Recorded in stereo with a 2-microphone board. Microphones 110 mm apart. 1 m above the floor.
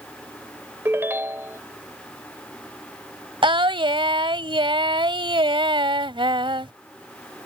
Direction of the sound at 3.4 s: 50° right (ahead or behind).